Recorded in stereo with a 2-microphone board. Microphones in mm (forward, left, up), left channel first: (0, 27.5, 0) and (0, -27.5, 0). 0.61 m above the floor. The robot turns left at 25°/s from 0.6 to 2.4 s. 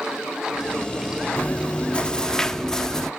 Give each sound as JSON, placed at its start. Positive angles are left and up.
{"t": 1.4, "sound": "chewing", "side_deg": 25, "distance_m": 0.7}